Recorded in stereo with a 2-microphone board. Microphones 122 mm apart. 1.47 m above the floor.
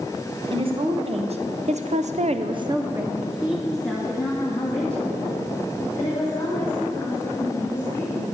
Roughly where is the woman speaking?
Right.